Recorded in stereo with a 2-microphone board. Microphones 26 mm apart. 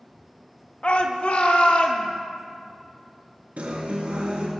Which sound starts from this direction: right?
A guitar, at 3.6 s.